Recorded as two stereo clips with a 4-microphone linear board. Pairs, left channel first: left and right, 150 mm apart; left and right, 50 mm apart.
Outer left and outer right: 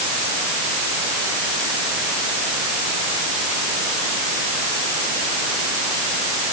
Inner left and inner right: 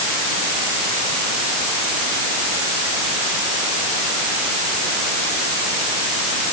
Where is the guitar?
I don't hear a guitar.